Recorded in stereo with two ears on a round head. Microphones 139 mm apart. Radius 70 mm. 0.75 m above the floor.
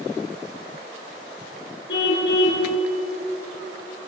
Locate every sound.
1.9 s a car horn: 85° left, 5.5 m